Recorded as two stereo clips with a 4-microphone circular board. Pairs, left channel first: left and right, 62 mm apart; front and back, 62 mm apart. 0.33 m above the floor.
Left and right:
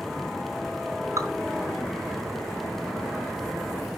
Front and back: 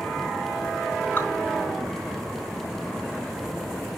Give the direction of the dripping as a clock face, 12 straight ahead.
2 o'clock.